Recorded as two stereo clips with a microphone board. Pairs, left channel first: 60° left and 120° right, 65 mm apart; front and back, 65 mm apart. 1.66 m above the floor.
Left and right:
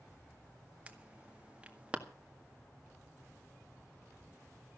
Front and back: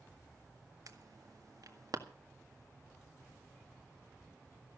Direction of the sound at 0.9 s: 170° left.